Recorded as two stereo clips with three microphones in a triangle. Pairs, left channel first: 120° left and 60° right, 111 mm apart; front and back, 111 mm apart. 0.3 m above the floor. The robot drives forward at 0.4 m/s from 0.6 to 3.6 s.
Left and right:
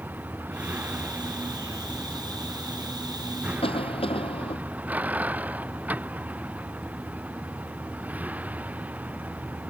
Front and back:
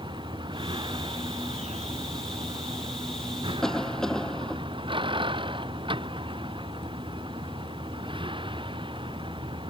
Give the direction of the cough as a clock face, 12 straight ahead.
9 o'clock.